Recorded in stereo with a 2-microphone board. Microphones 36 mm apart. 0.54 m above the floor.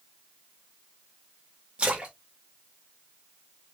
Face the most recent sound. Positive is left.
turn(degrees=-30)  # may be behind; listen again after turning